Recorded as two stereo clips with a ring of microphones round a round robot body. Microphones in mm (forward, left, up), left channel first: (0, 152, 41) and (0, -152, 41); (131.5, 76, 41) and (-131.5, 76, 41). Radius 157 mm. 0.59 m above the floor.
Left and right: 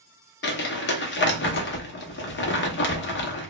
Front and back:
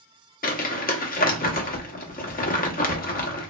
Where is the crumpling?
50° left, 0.7 m.